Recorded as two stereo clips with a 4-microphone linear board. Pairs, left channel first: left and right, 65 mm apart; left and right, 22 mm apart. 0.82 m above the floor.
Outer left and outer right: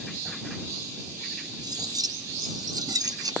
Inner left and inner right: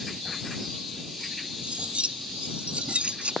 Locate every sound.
1.6 s cutlery clinking: 80° right